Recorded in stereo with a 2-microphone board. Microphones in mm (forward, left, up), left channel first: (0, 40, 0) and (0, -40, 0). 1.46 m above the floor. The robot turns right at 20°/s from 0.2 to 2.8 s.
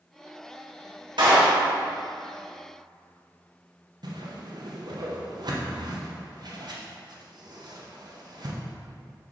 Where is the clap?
75° right (ahead or behind), 2 m; by 1.6 s 85° right, 2 m.